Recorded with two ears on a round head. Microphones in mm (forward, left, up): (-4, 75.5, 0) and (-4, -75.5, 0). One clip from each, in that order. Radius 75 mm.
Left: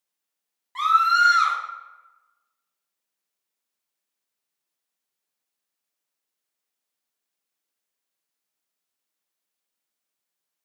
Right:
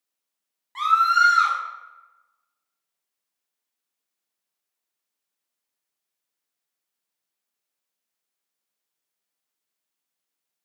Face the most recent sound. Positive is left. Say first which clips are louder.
# even
turn(degrees=0)  # may be behind; listen again after turning